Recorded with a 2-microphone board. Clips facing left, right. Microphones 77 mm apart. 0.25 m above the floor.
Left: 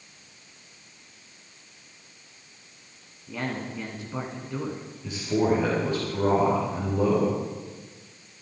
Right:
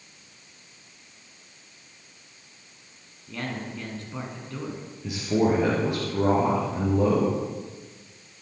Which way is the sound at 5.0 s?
10° right (ahead or behind).